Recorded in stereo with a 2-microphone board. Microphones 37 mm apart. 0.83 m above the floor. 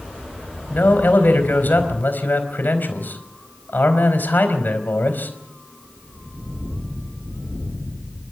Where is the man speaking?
65° left (ahead or behind), 4.5 m.